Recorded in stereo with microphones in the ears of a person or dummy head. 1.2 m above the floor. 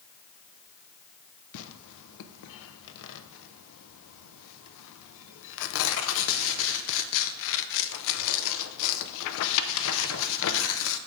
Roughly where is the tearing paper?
Left.